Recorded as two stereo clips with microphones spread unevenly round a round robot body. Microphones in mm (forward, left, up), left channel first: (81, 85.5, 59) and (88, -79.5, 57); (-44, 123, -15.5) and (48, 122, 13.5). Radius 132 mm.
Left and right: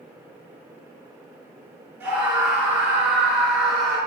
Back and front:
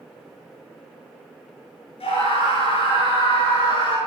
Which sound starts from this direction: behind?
A scream, at 2.0 s.